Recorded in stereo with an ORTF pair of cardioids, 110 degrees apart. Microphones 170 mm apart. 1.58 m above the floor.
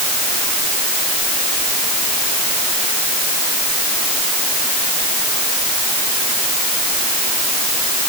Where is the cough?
No cough in this recording.